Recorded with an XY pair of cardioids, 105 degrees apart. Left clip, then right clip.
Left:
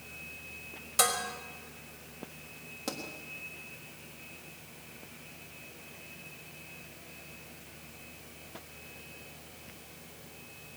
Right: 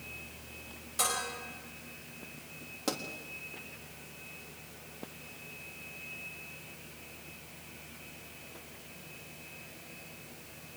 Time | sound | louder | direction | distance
1.0 | dishes clattering | left 4 dB | 55° left | 5 m
2.9 | a pop | right 3 dB | 15° right | 3.5 m